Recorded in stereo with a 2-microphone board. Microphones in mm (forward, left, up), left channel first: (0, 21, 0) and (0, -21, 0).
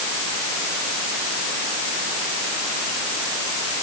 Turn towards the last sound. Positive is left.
No sound to turn to.